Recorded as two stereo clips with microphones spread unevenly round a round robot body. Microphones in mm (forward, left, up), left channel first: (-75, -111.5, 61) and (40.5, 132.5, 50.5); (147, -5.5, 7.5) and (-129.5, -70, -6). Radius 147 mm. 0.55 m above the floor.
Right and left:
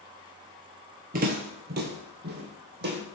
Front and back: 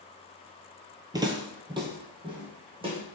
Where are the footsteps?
115° left, 0.7 m; by 3.0 s 120° left, 1.9 m.